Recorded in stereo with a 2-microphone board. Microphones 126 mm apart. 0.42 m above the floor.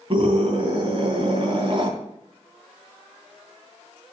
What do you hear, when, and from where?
0.1 s a scream: 45° right (ahead or behind), 3 m